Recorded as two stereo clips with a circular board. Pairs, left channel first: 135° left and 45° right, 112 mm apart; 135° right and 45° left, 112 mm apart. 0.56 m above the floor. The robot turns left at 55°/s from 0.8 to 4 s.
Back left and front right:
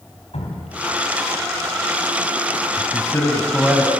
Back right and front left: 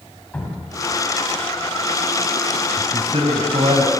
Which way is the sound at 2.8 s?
90° left.